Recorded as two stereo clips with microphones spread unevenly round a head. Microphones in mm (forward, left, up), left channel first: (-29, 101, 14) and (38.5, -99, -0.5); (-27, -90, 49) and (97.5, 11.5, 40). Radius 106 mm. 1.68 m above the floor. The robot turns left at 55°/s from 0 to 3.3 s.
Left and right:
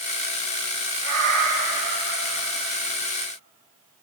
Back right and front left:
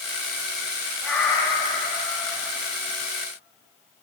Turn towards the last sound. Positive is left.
turn(degrees=-175)